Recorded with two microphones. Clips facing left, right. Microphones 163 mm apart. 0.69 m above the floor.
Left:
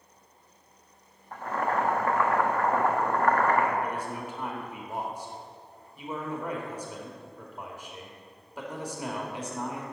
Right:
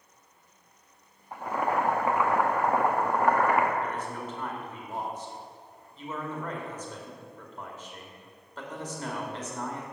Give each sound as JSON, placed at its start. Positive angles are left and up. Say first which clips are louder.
{"t": 1.3, "sound": "boiling", "louder": "right 1 dB", "side_deg": -10, "distance_m": 0.9}
{"t": 3.8, "sound": "a man speaking", "louder": "left 1 dB", "side_deg": 10, "distance_m": 1.8}